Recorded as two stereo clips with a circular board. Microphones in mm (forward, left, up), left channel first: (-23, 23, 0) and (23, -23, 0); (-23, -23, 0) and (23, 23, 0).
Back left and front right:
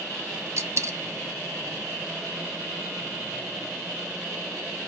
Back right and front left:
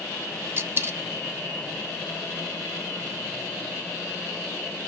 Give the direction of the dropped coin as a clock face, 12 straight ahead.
12 o'clock.